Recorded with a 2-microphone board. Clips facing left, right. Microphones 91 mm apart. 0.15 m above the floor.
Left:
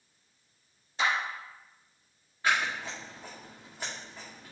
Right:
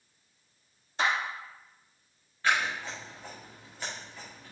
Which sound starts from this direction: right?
A clap, at 1.0 s.